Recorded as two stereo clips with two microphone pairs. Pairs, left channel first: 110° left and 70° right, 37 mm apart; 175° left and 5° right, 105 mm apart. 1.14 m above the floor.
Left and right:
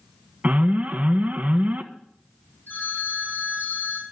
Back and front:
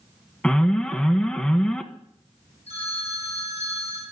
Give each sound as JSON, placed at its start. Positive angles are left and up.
{"t": 0.4, "sound": "an alarm", "azimuth_deg": -110, "distance_m": 1.0}
{"t": 2.7, "sound": "a phone ringing", "azimuth_deg": 155, "distance_m": 7.0}